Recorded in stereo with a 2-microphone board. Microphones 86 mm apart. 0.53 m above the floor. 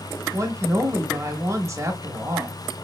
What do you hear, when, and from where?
0.3 s a woman speaking: 35° right (ahead or behind), 1.0 m